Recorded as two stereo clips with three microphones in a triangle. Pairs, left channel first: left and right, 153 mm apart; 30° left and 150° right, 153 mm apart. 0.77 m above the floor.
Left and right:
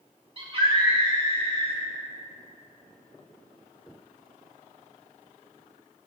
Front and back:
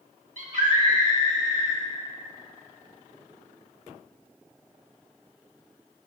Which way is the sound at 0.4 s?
135° right.